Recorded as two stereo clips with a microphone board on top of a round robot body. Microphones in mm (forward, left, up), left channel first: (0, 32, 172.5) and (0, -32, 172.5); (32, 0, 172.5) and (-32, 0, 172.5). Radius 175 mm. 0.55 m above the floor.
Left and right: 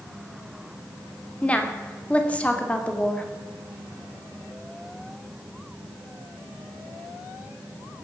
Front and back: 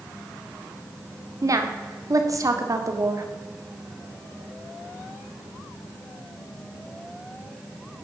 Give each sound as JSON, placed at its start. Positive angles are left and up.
{"t": 1.4, "sound": "a woman speaking", "azimuth_deg": 160, "distance_m": 2.5}